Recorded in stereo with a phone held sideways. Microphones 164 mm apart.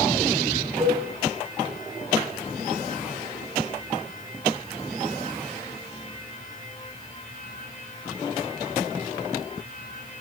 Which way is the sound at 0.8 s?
30° right (ahead or behind).